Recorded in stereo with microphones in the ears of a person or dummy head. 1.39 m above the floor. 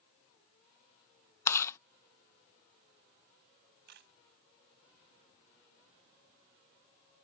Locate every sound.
1.5 s chewing: 15° left (ahead or behind)
3.9 s a camera shutter: 60° right (ahead or behind)